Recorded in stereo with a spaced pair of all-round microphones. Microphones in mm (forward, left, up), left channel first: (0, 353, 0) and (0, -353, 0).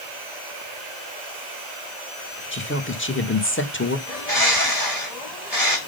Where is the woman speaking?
15° left (ahead or behind), 1.2 m.